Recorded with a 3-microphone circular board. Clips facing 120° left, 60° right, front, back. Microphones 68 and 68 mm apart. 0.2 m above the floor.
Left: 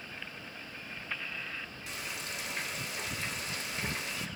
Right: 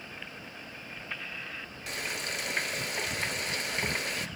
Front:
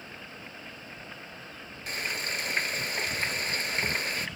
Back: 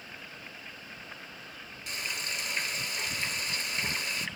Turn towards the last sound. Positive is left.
turn(degrees=-45)